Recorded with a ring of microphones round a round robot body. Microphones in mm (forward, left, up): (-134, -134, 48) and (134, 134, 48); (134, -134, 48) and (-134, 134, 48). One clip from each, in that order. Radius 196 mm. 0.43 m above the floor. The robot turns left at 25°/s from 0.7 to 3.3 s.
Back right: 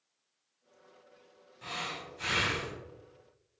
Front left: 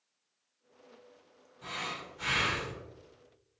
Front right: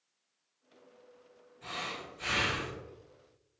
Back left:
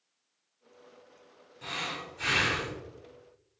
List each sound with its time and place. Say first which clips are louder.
1.6 s breathing: even, back left 4 dB; 175° right, 1.7 m; by 2.8 s 155° left, 1.7 m